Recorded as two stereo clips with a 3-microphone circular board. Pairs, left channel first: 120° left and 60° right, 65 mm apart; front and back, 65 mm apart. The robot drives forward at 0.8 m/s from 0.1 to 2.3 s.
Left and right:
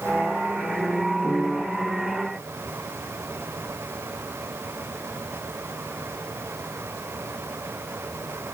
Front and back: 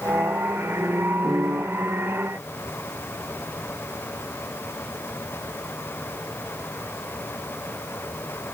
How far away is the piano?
About 5.5 m.